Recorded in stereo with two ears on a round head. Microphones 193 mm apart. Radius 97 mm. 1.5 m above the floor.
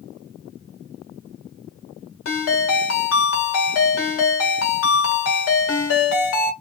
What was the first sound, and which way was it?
A ringtone, 65° left (ahead or behind).